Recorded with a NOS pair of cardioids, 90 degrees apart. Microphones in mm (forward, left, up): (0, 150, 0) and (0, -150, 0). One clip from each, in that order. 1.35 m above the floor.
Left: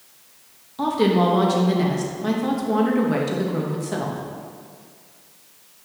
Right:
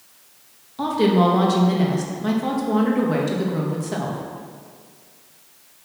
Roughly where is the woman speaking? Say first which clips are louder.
Right 1 dB; ahead.